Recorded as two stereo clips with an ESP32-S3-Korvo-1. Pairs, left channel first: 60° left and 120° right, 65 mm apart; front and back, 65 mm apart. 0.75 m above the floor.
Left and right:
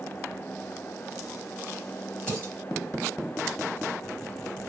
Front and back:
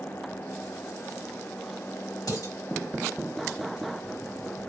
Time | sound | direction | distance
2.3 | dishes clattering | 15° right | 2.5 m